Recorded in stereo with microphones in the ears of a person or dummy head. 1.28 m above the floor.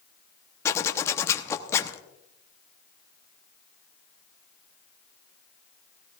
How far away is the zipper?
About 0.9 m.